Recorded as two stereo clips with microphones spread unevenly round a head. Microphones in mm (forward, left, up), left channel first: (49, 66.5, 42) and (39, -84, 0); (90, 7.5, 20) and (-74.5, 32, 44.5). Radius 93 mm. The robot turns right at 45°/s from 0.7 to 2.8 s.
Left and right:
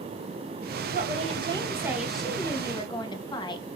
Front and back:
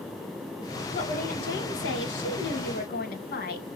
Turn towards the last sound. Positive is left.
turn(degrees=25)